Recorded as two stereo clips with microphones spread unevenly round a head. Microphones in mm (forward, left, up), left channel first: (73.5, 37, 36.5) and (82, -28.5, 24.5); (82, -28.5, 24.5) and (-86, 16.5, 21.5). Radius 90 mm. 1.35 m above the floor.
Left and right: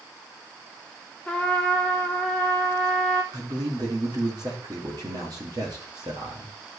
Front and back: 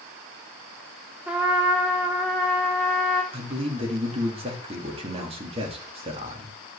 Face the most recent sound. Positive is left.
turn(degrees=-135)